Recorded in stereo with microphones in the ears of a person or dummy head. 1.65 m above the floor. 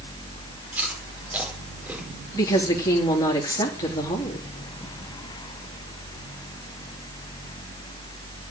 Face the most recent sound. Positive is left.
turn(degrees=20)  # may be behind; listen again after turning